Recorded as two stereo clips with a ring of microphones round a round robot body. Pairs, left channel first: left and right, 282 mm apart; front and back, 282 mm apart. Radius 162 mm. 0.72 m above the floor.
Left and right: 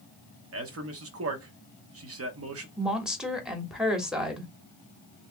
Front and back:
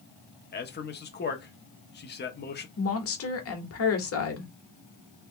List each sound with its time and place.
0.5 s a man speaking: 55° right, 1.2 m
2.8 s a woman speaking: 5° right, 1.5 m